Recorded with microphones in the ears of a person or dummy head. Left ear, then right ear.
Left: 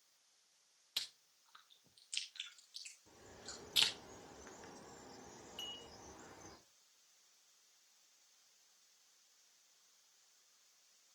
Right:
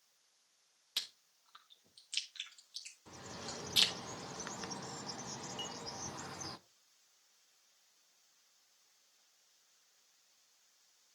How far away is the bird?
About 0.5 m.